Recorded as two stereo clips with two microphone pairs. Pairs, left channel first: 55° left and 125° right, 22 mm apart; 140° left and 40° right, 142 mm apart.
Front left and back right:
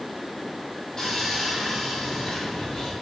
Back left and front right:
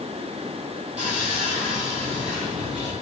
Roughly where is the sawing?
Ahead.